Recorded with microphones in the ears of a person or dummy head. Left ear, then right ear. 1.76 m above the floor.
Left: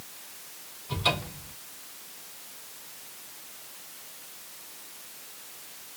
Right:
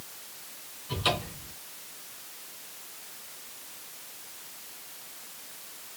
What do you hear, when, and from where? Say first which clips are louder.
0.9 s a cupboard door: left 1 dB; 5° left (ahead or behind), 3 m